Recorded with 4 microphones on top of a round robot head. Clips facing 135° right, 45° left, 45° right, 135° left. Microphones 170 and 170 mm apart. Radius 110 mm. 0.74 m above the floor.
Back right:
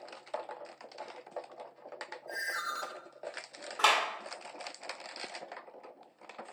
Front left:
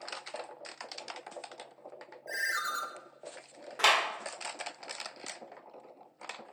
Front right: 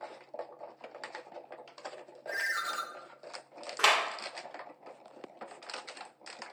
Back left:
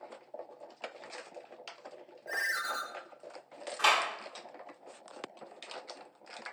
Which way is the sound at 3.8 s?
30° right.